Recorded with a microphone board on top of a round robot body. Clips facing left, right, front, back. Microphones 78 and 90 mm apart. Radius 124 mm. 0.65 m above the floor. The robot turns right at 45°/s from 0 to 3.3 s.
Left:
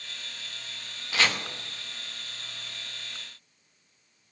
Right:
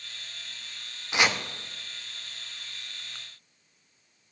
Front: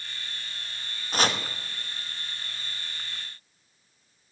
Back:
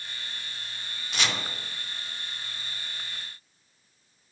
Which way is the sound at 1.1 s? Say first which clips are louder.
Right 1 dB, front 5 dB; 25° right.